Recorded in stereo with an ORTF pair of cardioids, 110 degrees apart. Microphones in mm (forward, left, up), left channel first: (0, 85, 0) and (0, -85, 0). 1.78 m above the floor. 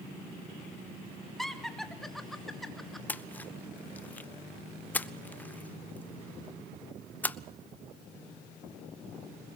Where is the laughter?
Straight ahead, 2.5 m.